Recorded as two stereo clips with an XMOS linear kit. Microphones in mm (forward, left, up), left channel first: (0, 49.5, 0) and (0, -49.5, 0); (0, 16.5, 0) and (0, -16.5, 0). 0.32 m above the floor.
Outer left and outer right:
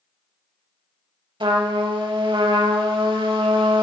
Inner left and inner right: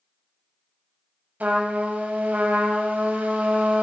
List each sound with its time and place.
1.4 s a trumpet: 60° right (ahead or behind), 0.8 m